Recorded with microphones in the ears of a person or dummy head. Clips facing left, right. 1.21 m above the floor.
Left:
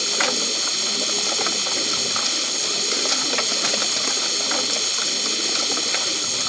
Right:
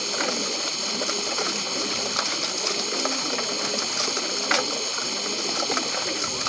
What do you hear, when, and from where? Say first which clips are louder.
0.0 s a machine running: left 1 dB; 20° left (ahead or behind)